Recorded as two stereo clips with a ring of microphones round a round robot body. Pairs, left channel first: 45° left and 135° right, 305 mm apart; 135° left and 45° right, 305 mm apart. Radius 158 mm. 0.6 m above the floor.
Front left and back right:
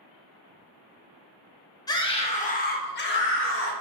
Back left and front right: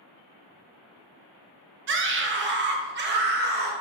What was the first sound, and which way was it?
A scream, 25° right.